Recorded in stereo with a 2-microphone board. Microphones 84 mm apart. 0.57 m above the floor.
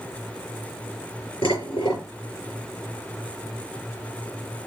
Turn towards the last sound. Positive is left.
turn(degrees=85)